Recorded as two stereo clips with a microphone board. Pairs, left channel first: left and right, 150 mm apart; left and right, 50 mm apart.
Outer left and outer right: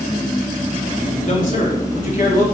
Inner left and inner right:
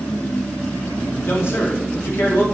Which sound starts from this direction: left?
A man speaking, at 1.3 s.